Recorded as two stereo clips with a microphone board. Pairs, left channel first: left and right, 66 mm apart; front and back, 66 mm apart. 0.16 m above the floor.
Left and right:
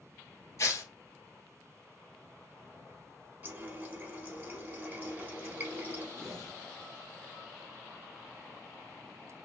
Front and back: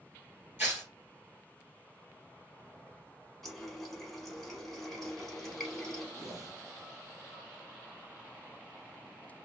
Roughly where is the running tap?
Right.